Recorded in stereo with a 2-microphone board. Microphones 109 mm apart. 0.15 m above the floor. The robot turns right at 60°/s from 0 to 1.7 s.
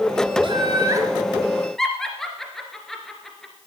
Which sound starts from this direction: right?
Laughter, at 0.4 s.